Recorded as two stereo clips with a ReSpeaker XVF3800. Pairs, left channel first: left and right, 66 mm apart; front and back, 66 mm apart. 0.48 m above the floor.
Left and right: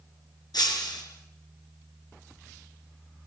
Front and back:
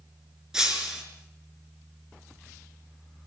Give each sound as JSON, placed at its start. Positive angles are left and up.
{"t": 0.5, "sound": "breaking glass", "azimuth_deg": 100, "distance_m": 5.0}